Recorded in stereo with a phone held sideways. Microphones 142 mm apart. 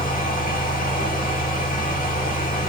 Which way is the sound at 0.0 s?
85° left.